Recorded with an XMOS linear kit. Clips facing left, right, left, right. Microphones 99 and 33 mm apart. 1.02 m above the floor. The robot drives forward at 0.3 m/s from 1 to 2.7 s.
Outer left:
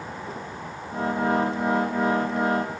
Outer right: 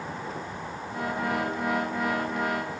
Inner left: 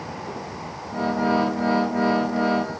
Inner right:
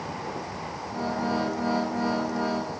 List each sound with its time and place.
Only background noise.